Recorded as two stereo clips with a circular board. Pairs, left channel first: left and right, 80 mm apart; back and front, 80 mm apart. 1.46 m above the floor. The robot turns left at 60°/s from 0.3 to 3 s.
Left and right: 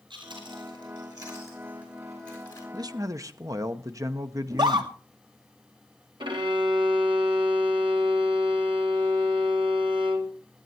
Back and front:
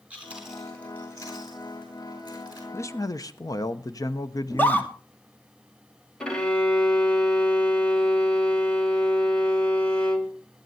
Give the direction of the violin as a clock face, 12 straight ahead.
3 o'clock.